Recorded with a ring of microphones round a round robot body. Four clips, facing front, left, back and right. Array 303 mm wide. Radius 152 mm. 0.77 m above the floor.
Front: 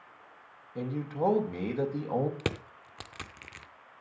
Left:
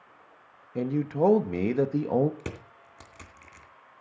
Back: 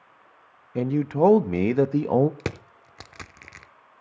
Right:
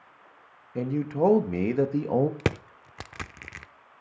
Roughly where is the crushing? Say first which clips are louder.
Right 10 dB, back 2 dB; right.